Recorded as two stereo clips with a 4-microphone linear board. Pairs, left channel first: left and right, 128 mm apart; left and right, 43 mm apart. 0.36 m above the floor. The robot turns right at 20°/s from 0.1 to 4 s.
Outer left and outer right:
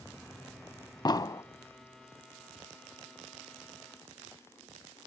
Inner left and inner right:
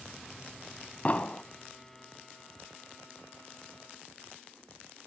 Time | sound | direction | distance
1.1 | an explosion | 35° left (ahead or behind) | 0.6 m